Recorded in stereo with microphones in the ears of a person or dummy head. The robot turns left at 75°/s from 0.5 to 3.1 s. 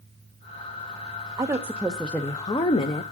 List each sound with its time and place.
1.4 s a woman speaking: 15° right (ahead or behind), 0.5 m; by 3.0 s 25° left (ahead or behind), 0.5 m